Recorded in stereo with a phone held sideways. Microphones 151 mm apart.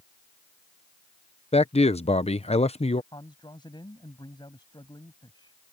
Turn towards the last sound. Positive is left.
turn(degrees=30)  # may be behind; listen again after turning